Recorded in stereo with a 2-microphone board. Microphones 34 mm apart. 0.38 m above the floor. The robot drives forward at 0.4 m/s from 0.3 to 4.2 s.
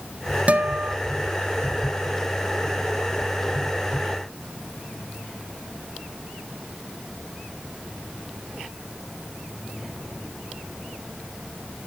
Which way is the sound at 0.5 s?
45° right (ahead or behind).